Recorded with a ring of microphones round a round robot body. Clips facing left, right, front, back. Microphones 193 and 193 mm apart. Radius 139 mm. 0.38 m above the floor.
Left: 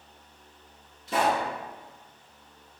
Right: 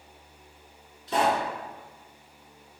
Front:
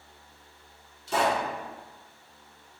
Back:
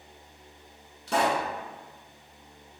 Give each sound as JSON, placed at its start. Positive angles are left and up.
{"t": 1.1, "sound": "a pop", "azimuth_deg": 160, "distance_m": 1.3}